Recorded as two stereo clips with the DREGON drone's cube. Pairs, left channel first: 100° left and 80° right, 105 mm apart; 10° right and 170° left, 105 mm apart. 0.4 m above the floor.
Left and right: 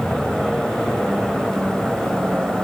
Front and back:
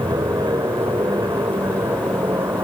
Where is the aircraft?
165° right; by 2.7 s 155° right.